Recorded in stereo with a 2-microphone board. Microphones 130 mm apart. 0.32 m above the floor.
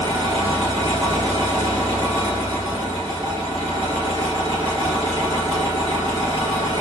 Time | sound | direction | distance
0.0 | an engine running | 40° right (ahead or behind) | 2.5 m